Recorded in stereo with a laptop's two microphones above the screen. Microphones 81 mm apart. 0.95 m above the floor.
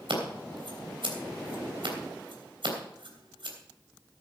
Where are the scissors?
85° right, 3 m.